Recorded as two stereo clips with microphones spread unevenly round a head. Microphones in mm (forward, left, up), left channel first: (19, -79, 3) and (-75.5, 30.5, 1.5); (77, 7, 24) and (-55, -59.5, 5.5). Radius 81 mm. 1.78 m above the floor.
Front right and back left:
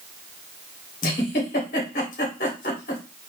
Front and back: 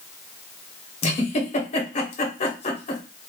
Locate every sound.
1.0 s a giggle: 10° right, 1.1 m